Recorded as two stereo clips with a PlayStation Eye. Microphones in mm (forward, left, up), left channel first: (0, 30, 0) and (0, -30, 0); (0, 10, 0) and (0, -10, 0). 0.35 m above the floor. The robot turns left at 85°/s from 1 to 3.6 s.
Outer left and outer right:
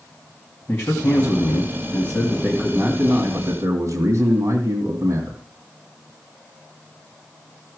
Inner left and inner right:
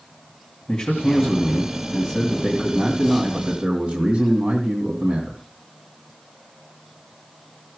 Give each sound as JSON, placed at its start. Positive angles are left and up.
{"t": 0.7, "sound": "a man speaking", "azimuth_deg": 155, "distance_m": 2.0}